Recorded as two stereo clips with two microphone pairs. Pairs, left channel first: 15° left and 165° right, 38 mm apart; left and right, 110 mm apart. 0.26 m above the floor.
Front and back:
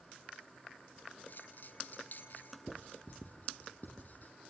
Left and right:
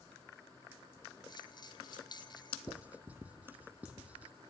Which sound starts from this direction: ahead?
Writing, at 2.7 s.